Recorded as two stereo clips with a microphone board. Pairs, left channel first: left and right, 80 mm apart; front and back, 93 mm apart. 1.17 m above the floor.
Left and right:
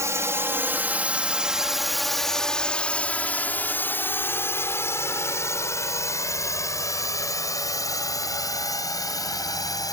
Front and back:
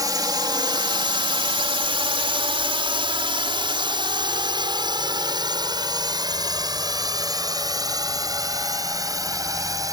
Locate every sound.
0.0 s a drone: 135° right; by 9.9 s 130° left